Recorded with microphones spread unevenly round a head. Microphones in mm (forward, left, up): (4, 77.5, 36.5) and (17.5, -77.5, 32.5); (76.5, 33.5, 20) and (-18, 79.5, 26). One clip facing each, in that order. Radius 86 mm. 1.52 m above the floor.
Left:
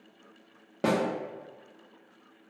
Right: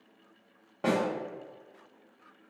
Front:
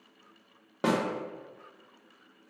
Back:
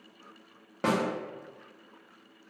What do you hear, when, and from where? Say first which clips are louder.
0.8 s a snare drum: left 1 dB, even; 55° left, 0.7 m